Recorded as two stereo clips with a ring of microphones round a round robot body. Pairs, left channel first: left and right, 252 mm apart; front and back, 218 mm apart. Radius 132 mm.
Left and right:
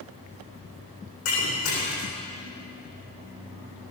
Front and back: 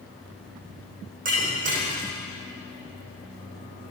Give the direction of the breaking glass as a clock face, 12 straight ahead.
8 o'clock.